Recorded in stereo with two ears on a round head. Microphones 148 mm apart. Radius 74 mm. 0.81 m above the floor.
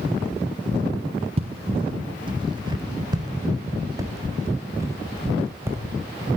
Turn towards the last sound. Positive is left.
turn(degrees=-15)  # may be behind; listen again after turning